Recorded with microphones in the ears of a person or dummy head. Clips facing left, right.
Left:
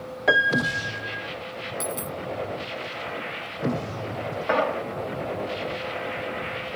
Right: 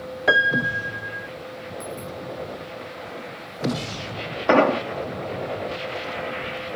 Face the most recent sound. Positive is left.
turn(degrees=-60)  # may be behind; listen again after turning